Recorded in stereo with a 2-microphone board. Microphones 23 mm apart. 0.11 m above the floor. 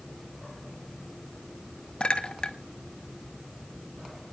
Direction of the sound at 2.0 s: 50° left (ahead or behind).